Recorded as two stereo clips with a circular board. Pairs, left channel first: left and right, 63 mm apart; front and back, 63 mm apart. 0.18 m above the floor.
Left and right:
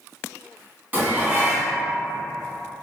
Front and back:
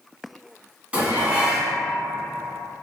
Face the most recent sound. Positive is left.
turn(degrees=-125)